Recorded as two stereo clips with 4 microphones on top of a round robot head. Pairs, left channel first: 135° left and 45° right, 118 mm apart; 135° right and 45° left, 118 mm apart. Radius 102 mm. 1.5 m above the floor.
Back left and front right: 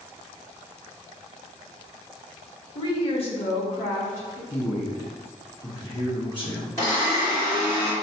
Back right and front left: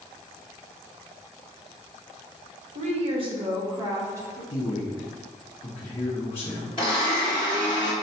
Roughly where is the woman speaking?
Left.